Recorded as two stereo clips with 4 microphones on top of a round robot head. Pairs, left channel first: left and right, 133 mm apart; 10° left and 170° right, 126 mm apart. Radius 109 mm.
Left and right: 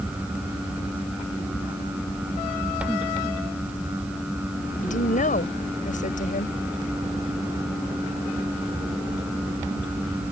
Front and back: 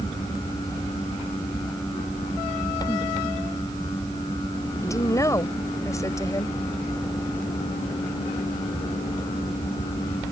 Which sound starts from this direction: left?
A woman speaking, at 4.8 s.